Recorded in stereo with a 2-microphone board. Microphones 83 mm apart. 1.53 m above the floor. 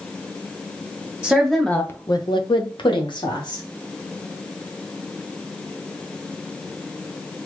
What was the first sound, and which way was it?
A woman speaking, 10° right (ahead or behind).